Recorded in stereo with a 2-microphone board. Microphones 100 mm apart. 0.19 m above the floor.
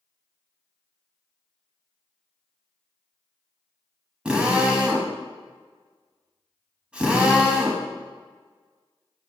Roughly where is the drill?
Centre.